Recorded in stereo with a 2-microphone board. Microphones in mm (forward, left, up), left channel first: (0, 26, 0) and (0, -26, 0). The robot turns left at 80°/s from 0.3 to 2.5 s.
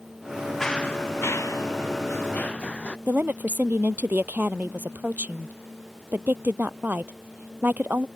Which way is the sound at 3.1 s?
40° right (ahead or behind).